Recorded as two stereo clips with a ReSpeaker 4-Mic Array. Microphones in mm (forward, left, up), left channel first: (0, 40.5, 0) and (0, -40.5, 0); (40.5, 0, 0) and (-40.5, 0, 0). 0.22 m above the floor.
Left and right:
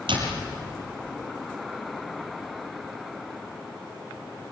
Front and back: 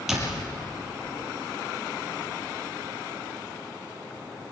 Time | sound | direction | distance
0.1 | a door slam | 95° right | 4.5 m